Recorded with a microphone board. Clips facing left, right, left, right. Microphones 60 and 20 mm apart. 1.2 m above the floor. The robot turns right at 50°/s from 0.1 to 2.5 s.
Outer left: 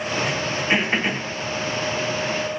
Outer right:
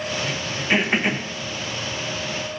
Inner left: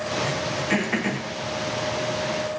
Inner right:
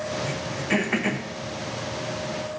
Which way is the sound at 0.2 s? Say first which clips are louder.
Outer left 2 dB, inner left 3 dB; 25° left (ahead or behind).